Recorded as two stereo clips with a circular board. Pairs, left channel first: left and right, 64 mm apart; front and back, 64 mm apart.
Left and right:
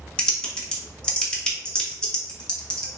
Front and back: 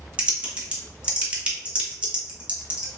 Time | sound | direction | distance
0.2 | typing on a keyboard | 140° left | 0.7 m